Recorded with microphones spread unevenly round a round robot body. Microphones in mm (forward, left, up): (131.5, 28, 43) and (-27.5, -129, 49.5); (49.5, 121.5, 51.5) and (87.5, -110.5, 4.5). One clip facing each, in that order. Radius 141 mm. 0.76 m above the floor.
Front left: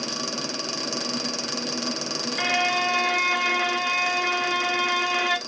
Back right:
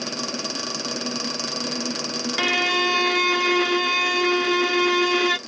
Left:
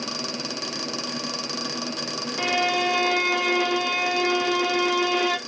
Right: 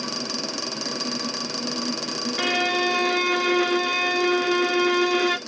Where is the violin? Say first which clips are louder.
Back right 4 dB, even; 135° right, 0.6 m.